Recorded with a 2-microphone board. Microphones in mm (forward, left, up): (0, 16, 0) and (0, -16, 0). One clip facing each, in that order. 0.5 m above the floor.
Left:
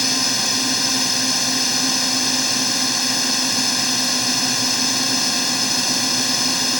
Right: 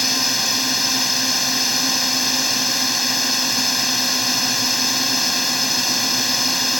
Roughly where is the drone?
Centre.